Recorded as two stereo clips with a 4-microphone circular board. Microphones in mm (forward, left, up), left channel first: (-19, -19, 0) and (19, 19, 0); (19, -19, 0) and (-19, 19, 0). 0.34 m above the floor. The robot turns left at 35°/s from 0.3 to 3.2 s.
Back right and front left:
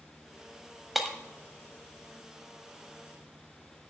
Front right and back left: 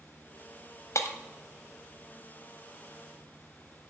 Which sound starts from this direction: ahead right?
Breaking glass, at 0.9 s.